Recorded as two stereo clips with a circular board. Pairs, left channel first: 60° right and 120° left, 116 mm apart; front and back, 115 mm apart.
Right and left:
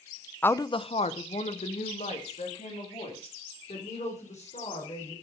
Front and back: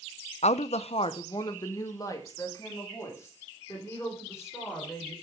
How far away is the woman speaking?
About 0.6 m.